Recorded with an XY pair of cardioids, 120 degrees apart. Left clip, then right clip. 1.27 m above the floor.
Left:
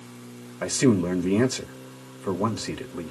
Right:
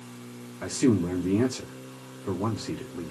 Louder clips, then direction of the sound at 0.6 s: Left 3 dB; 50° left.